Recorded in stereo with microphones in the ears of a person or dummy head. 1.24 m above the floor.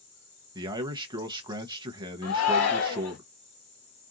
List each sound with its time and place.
0.6 s a man speaking: 20° right (ahead or behind), 0.7 m
2.2 s a shout: 85° left, 1.8 m